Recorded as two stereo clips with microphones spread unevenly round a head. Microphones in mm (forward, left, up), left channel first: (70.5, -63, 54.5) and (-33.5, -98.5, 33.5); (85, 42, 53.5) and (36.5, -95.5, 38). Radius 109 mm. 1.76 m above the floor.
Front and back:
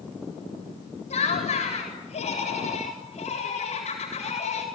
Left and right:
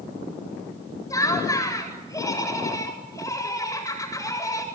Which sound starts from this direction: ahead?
Laughter, at 1.1 s.